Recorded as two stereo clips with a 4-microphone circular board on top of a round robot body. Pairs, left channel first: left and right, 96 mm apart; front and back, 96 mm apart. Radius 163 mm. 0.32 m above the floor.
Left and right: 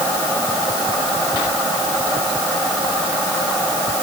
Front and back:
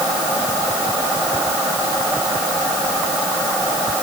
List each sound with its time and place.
Only background noise.